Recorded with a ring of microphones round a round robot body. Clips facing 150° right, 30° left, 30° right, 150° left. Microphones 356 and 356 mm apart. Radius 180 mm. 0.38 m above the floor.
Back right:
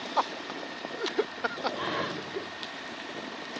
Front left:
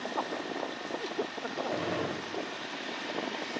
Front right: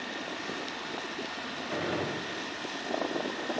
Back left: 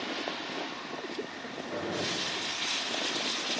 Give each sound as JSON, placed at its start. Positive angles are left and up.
{"t": 1.7, "sound": "a gunshot", "azimuth_deg": 50, "distance_m": 1.6}